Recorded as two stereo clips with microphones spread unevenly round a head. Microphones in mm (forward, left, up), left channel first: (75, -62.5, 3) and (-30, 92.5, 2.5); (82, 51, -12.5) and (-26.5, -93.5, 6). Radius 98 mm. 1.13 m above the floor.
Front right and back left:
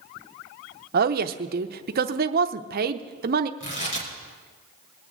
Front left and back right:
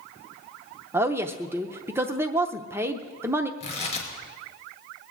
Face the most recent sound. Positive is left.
turn(degrees=-5)